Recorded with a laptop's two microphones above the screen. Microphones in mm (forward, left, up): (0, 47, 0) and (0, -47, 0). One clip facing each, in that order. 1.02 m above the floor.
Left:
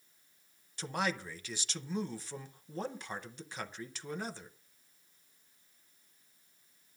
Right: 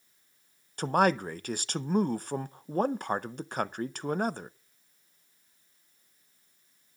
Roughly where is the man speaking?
Right.